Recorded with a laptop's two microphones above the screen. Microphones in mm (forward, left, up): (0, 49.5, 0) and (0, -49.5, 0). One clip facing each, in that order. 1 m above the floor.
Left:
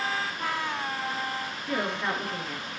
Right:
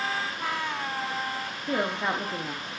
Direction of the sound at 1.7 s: 25° right (ahead or behind).